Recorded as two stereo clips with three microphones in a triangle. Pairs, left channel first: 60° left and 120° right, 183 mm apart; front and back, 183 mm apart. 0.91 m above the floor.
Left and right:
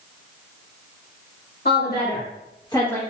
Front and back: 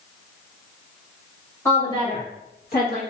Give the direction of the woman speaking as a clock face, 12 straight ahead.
10 o'clock.